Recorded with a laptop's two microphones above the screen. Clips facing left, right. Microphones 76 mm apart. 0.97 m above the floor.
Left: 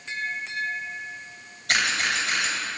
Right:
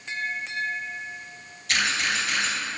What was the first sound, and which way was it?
A camera shutter, 65° left (ahead or behind).